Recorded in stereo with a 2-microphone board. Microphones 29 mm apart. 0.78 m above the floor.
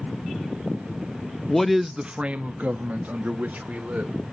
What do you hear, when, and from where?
1.5 s a man speaking: 20° left (ahead or behind), 0.5 m; by 4.1 s 75° right (ahead or behind), 1.8 m